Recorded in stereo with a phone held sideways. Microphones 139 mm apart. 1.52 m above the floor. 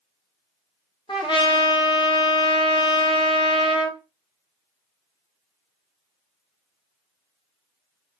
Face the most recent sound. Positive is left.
turn(degrees=35)  # may be behind; listen again after turning